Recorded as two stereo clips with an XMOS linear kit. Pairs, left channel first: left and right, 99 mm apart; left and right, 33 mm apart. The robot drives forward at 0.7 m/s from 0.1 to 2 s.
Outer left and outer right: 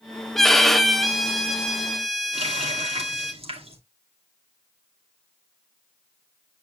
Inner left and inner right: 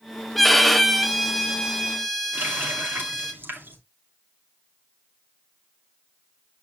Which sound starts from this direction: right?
A running tap, at 2.3 s.